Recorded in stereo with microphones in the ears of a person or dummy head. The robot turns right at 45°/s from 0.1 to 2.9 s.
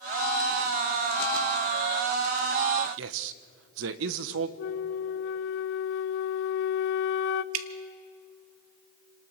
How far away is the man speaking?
About 1.1 m.